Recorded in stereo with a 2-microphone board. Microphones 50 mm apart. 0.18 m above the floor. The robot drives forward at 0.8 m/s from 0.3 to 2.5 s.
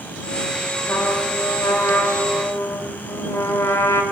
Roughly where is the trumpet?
Left.